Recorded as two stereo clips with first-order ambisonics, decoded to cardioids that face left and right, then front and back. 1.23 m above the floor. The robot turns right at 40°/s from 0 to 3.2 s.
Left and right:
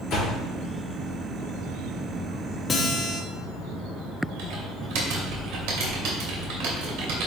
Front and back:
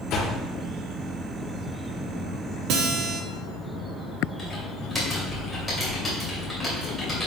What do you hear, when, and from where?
0.1 s a door slam: 35° left, 2 m; by 0.4 s 45° left, 2 m
2.7 s a guitar: 160° left, 1.1 m; by 3.2 s straight behind, 1.1 m
4.4 s typing on a keyboard: 85° right, 2.5 m